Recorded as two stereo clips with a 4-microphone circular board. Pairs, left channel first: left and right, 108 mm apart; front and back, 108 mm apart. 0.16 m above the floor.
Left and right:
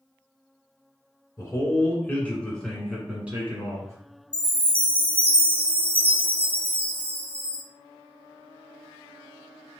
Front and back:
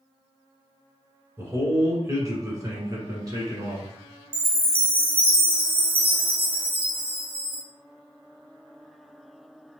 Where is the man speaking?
135° left, 1.8 m; by 4.0 s 140° right, 1.8 m.